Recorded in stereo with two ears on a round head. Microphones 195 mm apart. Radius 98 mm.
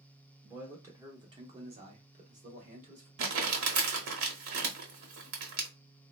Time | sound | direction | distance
0.4 | a man speaking | 5° right (ahead or behind) | 1.0 m
3.2 | crumpling | 70° right (ahead or behind) | 1.0 m